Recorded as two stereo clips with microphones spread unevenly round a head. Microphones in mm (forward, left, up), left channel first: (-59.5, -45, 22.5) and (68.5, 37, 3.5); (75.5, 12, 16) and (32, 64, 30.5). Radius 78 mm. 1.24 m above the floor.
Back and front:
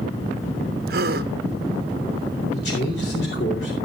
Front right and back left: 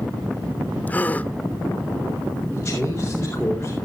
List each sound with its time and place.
0.9 s a gasp: 20° left, 0.7 m
2.5 s a man speaking: 130° right, 4 m